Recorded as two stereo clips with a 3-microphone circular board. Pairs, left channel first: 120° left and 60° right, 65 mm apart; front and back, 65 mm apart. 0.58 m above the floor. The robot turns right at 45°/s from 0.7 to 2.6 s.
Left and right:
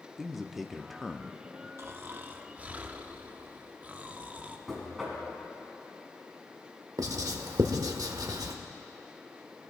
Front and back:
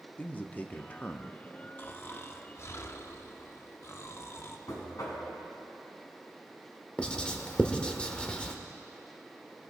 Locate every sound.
0.2 s a man speaking: 25° left, 0.7 m; by 1.7 s 70° left, 0.7 m
1.8 s snoring: 40° right, 0.7 m; by 4.6 s 5° right, 0.7 m
4.7 s knocking: 30° left, 4 m
7.0 s writing: 75° right, 1.0 m